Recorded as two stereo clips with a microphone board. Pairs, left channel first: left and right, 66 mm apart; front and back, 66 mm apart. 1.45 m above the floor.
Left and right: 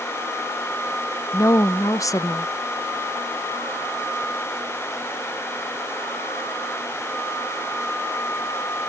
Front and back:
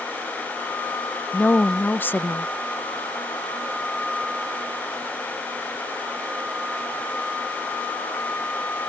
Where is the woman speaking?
60° left.